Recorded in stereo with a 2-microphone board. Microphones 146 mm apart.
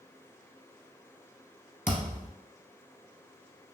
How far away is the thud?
About 1.0 m.